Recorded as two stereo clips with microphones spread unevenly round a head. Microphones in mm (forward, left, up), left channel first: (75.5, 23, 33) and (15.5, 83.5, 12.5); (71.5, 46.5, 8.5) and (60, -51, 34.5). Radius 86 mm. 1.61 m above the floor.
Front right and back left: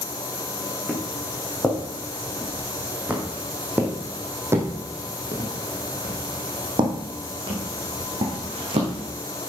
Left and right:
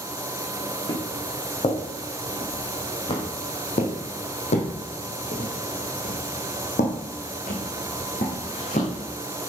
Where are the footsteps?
35° left, 4.5 m; by 9.0 s 130° left, 4 m.